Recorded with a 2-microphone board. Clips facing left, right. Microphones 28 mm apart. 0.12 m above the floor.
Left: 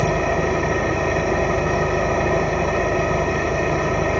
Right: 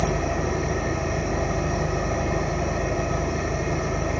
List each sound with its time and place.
0.0 s an engine running: 50° left (ahead or behind), 2 m